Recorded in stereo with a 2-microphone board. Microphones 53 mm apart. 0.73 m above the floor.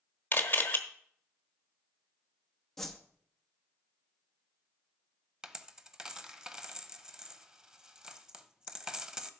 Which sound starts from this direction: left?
A camera shutter, at 0.3 s.